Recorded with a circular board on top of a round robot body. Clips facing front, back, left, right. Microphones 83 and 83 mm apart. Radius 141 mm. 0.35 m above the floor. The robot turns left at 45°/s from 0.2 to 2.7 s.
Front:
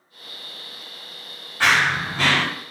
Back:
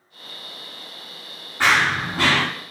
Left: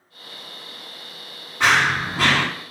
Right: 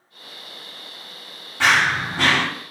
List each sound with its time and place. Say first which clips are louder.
1.6 s running footsteps: even, even; 100° right, 1.6 m; by 2.4 s 140° right, 1.6 m